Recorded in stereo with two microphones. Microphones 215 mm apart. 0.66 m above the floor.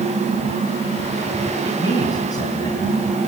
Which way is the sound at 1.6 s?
15° left (ahead or behind).